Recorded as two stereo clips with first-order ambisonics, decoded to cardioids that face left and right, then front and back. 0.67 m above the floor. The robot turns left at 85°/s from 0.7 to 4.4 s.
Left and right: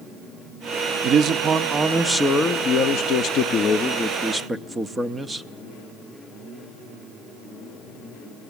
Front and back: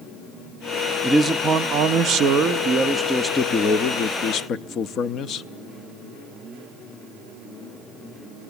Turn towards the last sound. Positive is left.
turn(degrees=-20)